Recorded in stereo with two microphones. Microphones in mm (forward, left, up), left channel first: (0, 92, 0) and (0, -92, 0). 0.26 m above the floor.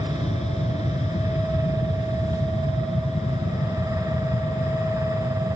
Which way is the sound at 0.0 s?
35° left (ahead or behind).